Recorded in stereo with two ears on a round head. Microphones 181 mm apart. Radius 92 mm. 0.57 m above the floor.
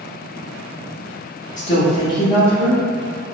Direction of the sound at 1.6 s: 40° left (ahead or behind).